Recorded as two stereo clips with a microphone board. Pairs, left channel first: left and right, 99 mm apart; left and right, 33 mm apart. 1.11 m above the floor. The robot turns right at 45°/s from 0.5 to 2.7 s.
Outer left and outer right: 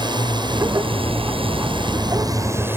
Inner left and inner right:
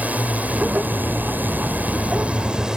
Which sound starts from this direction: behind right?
A drone, at 0.0 s.